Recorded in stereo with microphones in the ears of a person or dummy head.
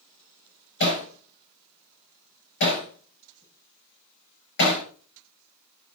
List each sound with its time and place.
0.8 s hammering: 65° left (ahead or behind), 5 m